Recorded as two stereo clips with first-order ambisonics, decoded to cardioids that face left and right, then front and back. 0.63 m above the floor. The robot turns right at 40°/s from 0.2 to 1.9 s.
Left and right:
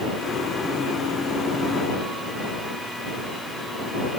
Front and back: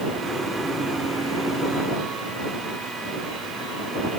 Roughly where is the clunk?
I don't hear a clunk.